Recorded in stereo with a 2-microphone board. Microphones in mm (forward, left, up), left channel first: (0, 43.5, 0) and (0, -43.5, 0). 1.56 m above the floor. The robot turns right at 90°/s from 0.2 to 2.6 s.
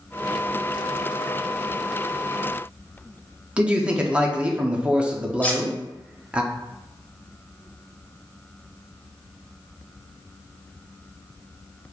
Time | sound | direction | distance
3.6 | a man speaking | 15° right (ahead or behind) | 0.7 m
5.4 | cutlery clinking | 15° left (ahead or behind) | 0.7 m